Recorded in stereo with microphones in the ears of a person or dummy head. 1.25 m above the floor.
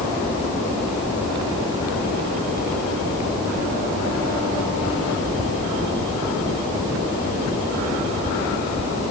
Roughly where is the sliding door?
I don't hear a sliding door.